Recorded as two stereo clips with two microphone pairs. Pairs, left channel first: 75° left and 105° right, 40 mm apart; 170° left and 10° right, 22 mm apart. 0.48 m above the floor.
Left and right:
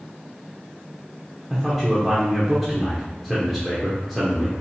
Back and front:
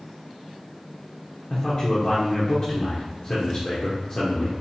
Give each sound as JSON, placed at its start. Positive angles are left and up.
{"t": 1.5, "sound": "a man speaking", "azimuth_deg": 165, "distance_m": 0.9}